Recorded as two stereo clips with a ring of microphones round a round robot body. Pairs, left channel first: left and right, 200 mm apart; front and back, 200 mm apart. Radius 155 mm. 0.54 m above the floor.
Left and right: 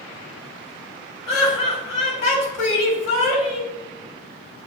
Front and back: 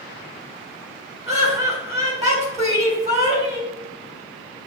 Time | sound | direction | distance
1.3 | laughter | 125° left | 2.0 m